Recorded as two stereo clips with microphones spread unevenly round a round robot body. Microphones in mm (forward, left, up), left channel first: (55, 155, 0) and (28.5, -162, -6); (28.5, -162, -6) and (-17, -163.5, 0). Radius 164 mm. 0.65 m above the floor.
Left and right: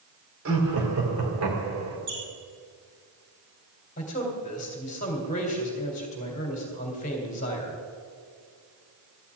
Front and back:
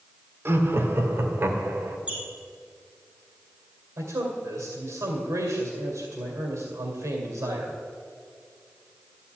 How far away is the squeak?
About 5.5 m.